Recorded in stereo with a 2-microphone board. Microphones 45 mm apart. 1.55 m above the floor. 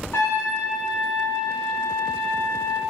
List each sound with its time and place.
0.1 s a trumpet: 70° left (ahead or behind), 1.6 m